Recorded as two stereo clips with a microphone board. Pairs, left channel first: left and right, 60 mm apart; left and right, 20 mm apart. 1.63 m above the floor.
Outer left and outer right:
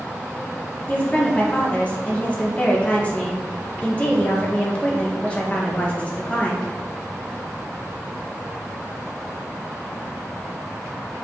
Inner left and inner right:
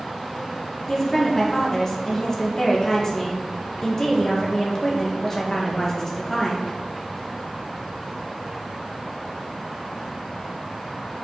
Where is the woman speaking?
25° left (ahead or behind), 1.5 m.